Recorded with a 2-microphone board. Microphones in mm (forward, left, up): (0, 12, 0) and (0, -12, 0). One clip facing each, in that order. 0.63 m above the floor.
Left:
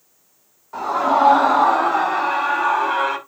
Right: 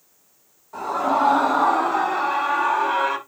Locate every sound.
0.7 s a scream: 30° left (ahead or behind), 6.5 m; by 3.2 s 10° left (ahead or behind), 4.5 m